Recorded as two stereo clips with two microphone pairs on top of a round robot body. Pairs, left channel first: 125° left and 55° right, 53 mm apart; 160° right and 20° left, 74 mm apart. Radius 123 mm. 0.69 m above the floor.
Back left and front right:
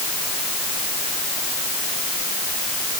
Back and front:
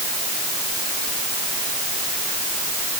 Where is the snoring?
No snoring in this recording.